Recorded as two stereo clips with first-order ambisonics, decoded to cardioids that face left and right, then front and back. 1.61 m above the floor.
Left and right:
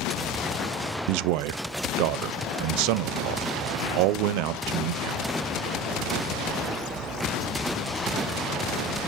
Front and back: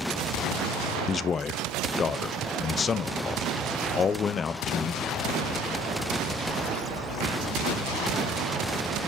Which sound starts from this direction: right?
A man speaking, at 1.1 s.